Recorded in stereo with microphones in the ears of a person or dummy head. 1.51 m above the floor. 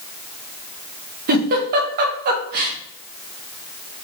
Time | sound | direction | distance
1.3 | a giggle | 50° right (ahead or behind) | 0.7 m